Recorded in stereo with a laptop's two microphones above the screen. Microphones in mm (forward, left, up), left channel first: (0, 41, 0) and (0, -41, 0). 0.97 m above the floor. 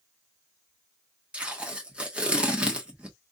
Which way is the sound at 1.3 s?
15° right (ahead or behind).